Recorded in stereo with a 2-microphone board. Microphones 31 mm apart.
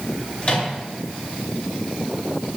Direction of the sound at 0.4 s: 40° left (ahead or behind).